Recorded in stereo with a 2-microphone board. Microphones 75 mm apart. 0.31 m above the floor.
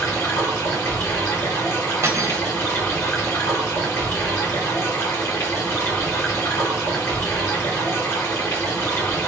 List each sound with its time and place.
0.0 s running water: 30° left (ahead or behind), 2 m
2.0 s cutlery clinking: 40° right (ahead or behind), 0.7 m